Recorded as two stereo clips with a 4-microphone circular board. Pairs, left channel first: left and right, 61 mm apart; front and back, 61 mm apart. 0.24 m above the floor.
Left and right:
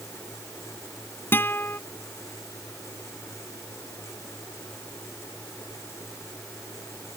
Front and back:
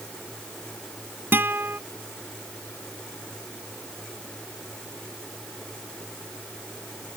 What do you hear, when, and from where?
1.3 s a guitar: 135° left